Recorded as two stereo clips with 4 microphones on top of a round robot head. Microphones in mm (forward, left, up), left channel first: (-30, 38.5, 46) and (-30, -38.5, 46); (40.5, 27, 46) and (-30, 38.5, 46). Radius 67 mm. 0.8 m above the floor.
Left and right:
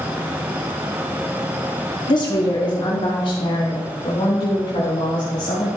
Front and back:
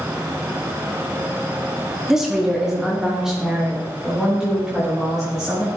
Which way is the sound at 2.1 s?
85° left.